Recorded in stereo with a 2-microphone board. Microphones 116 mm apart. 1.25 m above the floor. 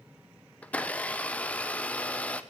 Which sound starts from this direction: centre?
A blender, at 0.6 s.